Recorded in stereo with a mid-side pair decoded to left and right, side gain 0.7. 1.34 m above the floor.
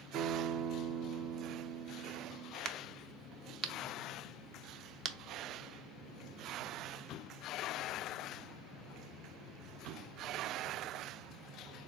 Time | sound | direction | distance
0.1 | a guitar | 50° right | 0.6 m
2.6 | a crack | 45° right | 0.6 m